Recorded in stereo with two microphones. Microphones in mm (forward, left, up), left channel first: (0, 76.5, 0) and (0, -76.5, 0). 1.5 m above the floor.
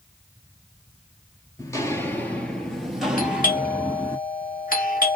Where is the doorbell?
70° left (ahead or behind), 1.4 m.